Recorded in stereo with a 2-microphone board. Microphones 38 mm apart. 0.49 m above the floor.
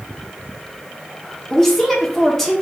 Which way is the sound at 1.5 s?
10° left (ahead or behind).